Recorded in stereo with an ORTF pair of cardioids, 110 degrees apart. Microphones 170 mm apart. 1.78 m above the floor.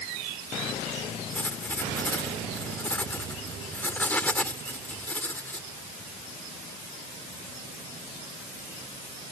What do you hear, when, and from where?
1.3 s writing: 10° left